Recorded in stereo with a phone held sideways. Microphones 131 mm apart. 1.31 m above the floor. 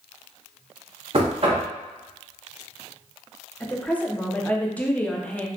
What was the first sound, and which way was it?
Knocking, 50° right (ahead or behind).